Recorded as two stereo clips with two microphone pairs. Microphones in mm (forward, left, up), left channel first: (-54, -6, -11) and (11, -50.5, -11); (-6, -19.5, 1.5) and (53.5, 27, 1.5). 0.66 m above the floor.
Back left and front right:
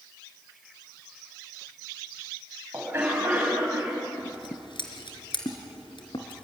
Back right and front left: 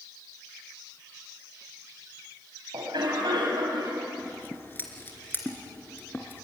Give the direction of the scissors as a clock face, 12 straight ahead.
7 o'clock.